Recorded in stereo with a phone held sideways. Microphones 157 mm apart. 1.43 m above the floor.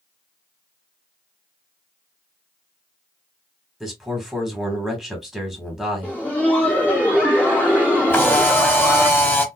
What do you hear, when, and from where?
3.8 s a man speaking: 5° right (ahead or behind), 1.5 m
6.0 s laughter: 10° left (ahead or behind), 0.5 m
8.1 s a camera shutter: 15° left (ahead or behind), 0.9 m